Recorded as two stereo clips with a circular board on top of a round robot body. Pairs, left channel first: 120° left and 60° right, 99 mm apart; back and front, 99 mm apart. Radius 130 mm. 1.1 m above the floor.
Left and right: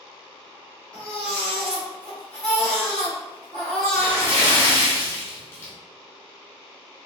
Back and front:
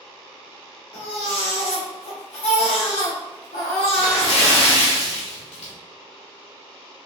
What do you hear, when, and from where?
0.9 s a baby crying: 160° right, 1.1 m
3.9 s a splash: 175° right, 1.2 m